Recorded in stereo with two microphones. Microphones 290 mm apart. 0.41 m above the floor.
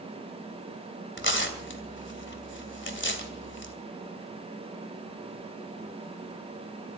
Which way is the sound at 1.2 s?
45° left (ahead or behind).